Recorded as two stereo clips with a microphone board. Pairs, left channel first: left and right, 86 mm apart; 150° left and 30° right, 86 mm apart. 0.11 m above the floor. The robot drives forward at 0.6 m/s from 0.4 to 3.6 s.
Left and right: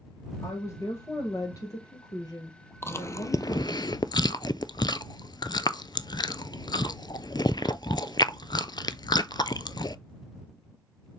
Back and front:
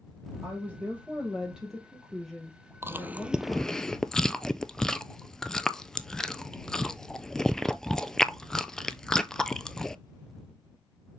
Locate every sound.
0.4 s a woman speaking: 40° left, 3 m; by 3.8 s 85° left, 2 m
2.8 s chewing: 30° left, 0.8 m; by 10.0 s 65° left, 0.5 m